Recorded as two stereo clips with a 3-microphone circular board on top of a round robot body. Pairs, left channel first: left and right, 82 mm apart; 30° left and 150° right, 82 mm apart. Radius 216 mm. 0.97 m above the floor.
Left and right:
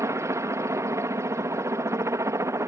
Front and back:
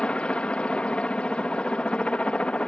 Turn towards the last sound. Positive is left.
turn(degrees=-45)